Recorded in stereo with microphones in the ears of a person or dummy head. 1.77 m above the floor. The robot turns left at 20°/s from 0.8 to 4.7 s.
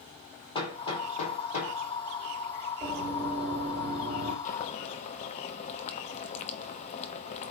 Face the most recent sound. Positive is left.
turn(degrees=45)  # may be behind; listen again after turning